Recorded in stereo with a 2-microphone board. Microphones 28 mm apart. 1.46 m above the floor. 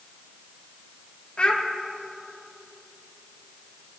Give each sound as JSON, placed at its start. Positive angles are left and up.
{"t": 1.4, "sound": "a child speaking", "side_deg": 45, "distance_m": 1.8}